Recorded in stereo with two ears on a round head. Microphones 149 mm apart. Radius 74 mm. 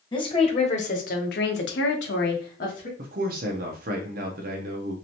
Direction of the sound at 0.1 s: 30° left (ahead or behind).